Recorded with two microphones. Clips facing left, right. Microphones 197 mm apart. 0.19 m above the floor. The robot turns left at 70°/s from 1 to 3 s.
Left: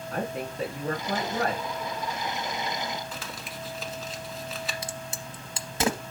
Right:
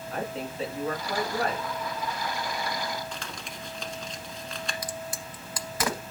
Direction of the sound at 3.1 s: 5° left (ahead or behind).